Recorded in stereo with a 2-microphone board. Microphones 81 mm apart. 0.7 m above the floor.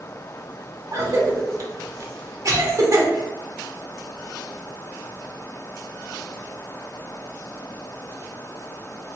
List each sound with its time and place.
0.9 s a cough: 40° right (ahead or behind), 0.9 m